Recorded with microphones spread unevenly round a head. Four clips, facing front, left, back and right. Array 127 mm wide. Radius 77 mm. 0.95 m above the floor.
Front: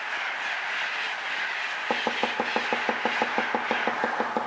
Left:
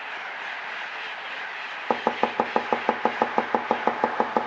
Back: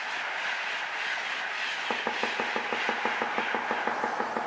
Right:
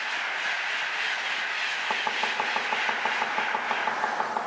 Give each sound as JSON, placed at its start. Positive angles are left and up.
{"t": 1.9, "sound": "chopping", "azimuth_deg": 80, "distance_m": 0.6}